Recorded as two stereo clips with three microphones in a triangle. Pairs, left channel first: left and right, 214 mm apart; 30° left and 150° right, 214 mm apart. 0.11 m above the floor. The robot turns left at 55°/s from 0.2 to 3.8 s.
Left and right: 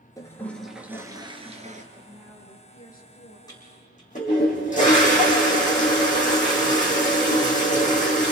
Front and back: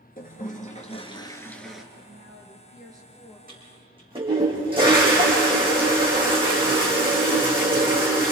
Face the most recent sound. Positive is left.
turn(degrees=145)